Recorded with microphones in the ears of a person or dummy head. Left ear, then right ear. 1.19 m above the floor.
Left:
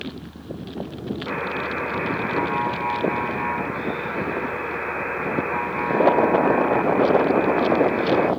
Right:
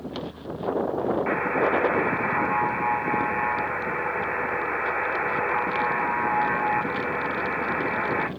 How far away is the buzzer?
About 1.1 m.